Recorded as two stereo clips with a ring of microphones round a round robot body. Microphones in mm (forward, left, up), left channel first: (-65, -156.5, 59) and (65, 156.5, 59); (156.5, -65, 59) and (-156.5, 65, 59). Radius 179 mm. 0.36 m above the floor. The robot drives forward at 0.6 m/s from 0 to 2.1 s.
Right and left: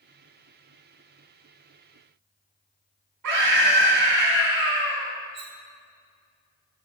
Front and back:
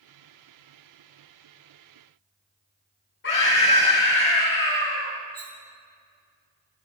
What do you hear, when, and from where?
3.2 s a scream: 35° left, 4 m
5.3 s cutlery clinking: 110° left, 1.9 m